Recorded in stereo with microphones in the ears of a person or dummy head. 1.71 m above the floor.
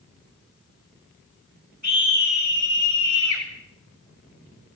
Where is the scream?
40° right (ahead or behind), 8.5 m; by 3.5 s 30° right (ahead or behind), 7.5 m.